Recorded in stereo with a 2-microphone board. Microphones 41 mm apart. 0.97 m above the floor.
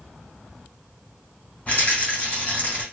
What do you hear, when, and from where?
1.7 s a rattle: 40° left (ahead or behind), 1.7 m